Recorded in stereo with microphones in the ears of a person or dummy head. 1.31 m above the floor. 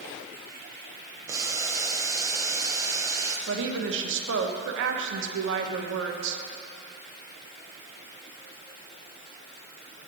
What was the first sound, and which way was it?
Boiling, 25° right (ahead or behind).